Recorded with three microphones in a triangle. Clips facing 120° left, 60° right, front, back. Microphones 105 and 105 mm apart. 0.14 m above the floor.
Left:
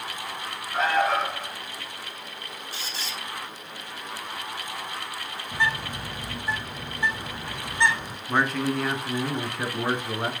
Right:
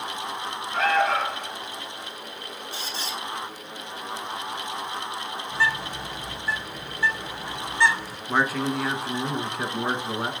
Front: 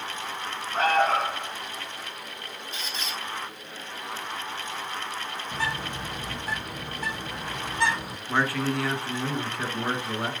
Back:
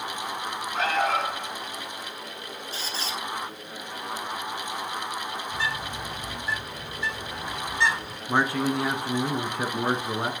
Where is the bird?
50° left, 1.4 m.